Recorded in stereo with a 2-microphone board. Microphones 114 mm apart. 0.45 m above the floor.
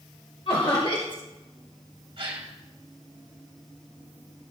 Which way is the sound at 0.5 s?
50° left (ahead or behind).